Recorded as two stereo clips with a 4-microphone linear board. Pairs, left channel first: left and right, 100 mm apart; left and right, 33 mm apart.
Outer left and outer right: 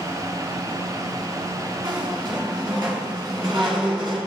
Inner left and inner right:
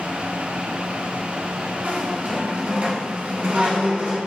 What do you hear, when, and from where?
1.8 s a squeak: 50° right (ahead or behind), 1.5 m